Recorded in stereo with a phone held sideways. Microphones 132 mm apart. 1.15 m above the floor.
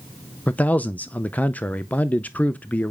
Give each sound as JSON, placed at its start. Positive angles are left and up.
{"t": 0.5, "sound": "a man speaking", "side_deg": 10, "distance_m": 0.5}